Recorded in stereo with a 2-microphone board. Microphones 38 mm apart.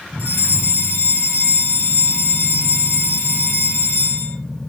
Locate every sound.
0.2 s a fire alarm: 70° left (ahead or behind), 7.5 m